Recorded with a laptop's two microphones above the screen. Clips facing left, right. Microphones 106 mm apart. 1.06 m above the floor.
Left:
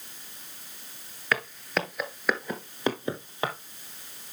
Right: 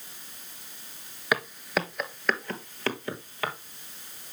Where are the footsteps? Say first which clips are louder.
Right 1 dB; 15° right (ahead or behind), 1.0 m; by 3.5 s 25° left (ahead or behind), 1.5 m.